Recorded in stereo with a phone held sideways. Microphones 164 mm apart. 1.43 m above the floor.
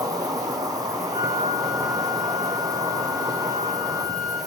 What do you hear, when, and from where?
0.0 s an insect: 20° right (ahead or behind), 0.9 m
1.1 s a flute: 40° left (ahead or behind), 4 m